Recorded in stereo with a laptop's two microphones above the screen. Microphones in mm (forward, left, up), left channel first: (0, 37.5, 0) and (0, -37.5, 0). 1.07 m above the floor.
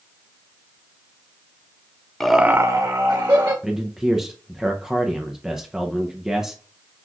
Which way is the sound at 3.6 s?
5° right (ahead or behind).